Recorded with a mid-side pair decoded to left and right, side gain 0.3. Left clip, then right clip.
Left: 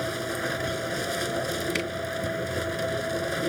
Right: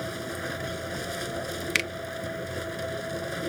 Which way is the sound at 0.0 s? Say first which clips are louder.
Left 4 dB; 45° left.